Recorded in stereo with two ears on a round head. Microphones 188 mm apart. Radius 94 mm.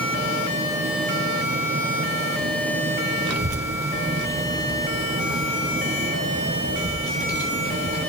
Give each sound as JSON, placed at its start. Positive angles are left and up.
{"t": 3.3, "sound": "a child speaking", "side_deg": -85, "distance_m": 1.3}